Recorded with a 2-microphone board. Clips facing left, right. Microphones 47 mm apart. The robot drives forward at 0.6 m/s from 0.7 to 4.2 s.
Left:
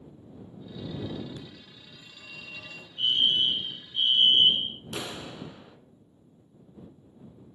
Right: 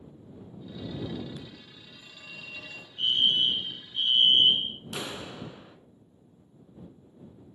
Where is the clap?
10° right (ahead or behind), 0.8 m.